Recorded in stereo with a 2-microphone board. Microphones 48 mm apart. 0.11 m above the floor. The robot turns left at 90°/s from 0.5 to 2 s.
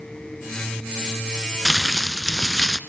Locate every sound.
1.6 s crumpling: centre (ahead or behind), 0.9 m; by 2.8 s 10° left (ahead or behind), 0.9 m